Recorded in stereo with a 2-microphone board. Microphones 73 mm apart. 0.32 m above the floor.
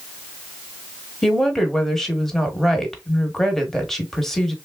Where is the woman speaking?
5° left (ahead or behind), 0.9 m.